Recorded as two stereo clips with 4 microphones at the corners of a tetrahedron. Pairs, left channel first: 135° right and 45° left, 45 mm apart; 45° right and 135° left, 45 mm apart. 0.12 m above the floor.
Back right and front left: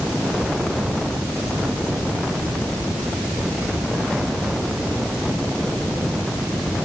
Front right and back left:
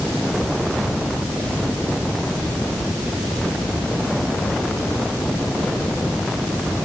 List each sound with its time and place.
Only background noise.